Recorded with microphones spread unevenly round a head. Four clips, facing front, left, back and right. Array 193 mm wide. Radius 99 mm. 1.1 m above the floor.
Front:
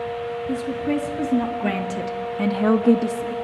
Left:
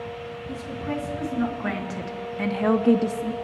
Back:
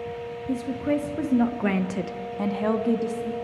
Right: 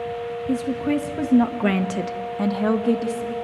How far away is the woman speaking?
About 2.0 m.